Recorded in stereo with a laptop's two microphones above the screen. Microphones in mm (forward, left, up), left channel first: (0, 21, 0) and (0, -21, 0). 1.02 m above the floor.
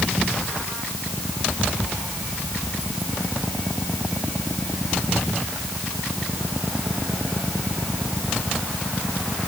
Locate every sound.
Only background noise.